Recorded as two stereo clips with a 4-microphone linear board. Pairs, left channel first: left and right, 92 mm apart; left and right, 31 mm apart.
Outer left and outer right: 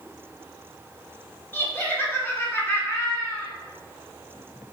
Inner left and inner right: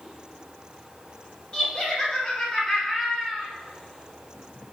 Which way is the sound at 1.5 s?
25° left (ahead or behind).